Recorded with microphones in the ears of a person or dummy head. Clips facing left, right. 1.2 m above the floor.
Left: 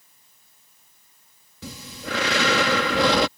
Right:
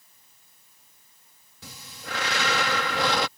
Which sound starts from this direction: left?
Breathing, at 1.6 s.